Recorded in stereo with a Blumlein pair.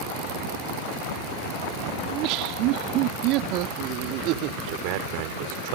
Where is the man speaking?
45° right.